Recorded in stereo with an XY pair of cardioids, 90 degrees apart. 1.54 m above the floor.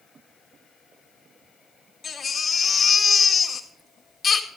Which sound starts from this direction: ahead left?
A baby crying, at 2.0 s.